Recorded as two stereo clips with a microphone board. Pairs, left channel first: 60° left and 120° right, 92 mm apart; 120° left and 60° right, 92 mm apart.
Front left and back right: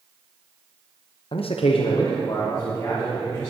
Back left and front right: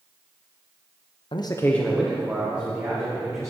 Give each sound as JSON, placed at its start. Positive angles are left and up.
{"t": 1.3, "sound": "a man speaking", "azimuth_deg": 90, "distance_m": 0.8}